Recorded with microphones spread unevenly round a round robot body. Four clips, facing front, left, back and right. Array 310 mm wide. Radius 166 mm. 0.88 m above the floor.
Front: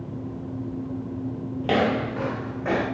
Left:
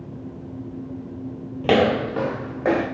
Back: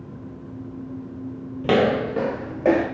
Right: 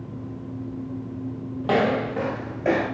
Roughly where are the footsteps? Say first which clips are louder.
Left 3 dB, back 4 dB; behind left.